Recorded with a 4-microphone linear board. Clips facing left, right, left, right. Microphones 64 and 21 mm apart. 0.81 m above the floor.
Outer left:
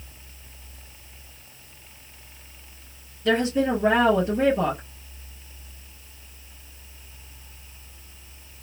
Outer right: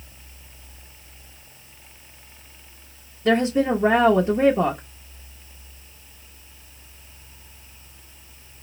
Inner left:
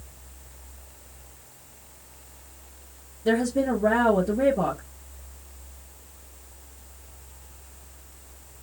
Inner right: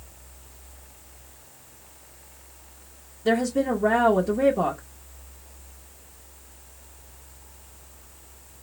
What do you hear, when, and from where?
3.2 s a woman speaking: 25° right (ahead or behind), 0.6 m